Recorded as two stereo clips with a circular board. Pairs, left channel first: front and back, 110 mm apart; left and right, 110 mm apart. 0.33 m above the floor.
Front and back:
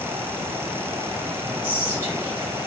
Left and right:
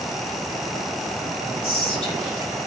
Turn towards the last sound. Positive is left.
turn(degrees=110)